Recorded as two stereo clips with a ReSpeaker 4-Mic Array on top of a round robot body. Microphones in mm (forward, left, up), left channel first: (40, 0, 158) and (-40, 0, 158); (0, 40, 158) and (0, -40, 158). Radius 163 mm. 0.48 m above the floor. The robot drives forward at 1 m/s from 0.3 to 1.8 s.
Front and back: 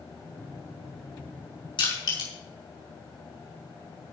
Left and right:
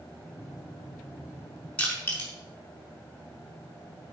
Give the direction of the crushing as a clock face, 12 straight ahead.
11 o'clock.